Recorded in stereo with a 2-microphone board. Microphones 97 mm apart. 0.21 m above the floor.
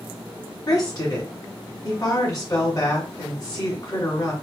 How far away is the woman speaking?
About 1.8 m.